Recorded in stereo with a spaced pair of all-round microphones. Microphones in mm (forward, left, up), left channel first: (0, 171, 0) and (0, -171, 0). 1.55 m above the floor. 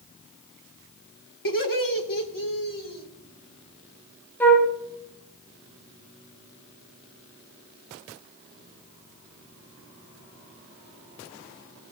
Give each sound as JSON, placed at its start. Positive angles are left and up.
{"t": 1.4, "sound": "laughter", "side_deg": 85, "distance_m": 1.5}
{"t": 4.4, "sound": "a flute", "side_deg": 5, "distance_m": 1.2}